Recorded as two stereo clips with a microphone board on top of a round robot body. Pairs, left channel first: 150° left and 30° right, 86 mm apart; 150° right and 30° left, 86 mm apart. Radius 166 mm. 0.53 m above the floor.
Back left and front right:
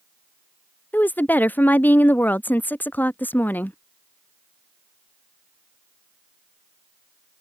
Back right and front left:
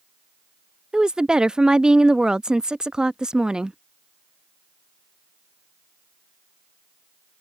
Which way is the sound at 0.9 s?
100° left.